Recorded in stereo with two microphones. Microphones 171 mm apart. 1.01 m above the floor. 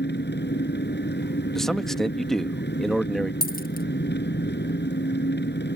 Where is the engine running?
85° left.